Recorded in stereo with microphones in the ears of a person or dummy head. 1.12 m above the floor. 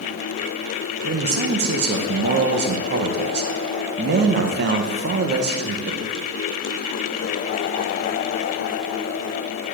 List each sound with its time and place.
1.0 s a man speaking: 45° right (ahead or behind), 0.7 m